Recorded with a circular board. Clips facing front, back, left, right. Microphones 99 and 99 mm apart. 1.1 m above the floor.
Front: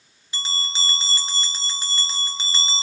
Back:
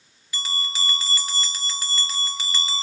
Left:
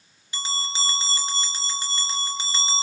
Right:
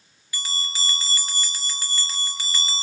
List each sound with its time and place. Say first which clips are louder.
0.3 s a bell: even, left 4 dB; 40° left, 0.5 m